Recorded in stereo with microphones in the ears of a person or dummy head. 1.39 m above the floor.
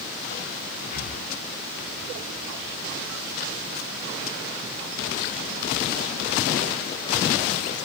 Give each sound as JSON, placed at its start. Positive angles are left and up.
{"t": 0.9, "sound": "breathing", "side_deg": 50, "distance_m": 0.9}